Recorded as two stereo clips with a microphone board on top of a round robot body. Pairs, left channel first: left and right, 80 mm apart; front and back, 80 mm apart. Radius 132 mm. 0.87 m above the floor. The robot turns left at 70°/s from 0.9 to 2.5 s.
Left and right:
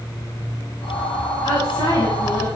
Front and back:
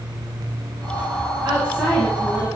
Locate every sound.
1.4 s a woman speaking: 120° left, 7 m; by 2.5 s 50° left, 7 m